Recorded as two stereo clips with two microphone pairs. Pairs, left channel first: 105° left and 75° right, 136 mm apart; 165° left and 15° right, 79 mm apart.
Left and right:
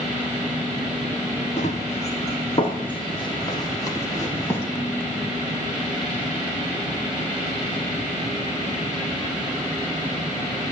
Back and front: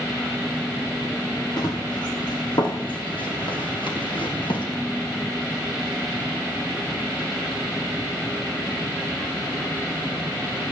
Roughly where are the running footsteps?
Behind left.